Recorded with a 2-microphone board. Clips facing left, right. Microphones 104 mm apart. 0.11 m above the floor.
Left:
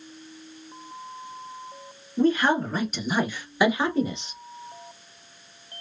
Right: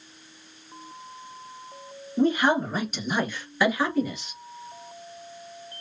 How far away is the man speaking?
About 1.1 m.